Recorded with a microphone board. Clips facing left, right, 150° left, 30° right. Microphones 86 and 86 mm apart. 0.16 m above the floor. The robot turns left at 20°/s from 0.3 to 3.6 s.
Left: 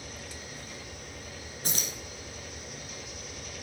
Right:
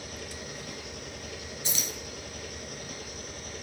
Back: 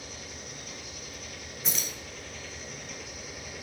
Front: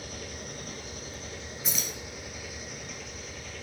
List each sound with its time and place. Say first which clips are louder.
0.0 s an engine running: right 3 dB, front 3 dB; 65° right, 1.4 m; by 3.6 s 135° right, 1.4 m
1.6 s keys jangling: left 1 dB, even; 60° left, 1.8 m; by 1.9 s 50° left, 1.8 m